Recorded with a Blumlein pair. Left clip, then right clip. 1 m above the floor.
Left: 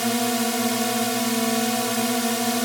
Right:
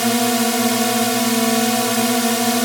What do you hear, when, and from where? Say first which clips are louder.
0.0 s a drone: right 5 dB; 15° right